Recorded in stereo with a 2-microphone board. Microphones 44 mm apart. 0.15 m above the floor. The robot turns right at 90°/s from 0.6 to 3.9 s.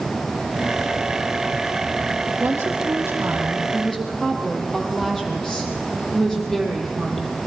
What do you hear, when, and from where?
2.4 s a woman speaking: 125° right, 6 m; by 7.4 s 10° left, 6 m